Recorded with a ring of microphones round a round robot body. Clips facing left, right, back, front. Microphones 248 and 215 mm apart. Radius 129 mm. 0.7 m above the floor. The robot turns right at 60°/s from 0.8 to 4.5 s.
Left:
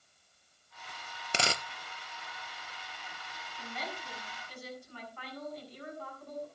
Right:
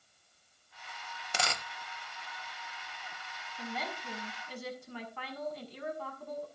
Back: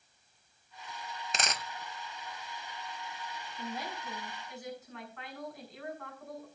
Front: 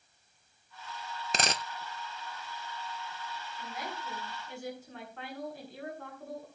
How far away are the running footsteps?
I don't hear running footsteps.